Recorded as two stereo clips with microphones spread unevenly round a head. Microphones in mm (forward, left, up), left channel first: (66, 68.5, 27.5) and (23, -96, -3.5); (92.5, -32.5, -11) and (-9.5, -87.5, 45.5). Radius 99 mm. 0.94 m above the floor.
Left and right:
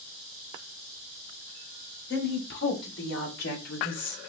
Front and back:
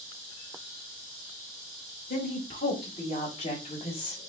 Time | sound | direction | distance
2.1 | a woman speaking | 60° left | 6 m